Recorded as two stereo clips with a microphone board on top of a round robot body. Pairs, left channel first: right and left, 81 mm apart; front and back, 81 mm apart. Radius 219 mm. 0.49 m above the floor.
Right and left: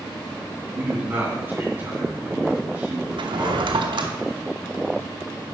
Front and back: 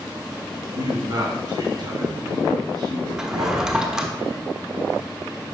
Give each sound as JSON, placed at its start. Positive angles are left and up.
{"t": 0.8, "sound": "a man speaking", "azimuth_deg": 155, "distance_m": 2.5}
{"t": 3.2, "sound": "a drawer", "azimuth_deg": 100, "distance_m": 0.9}